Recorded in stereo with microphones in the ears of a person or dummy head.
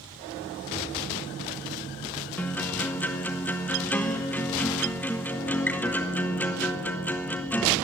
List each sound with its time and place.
2.4 s a guitar: 10° left (ahead or behind), 0.7 m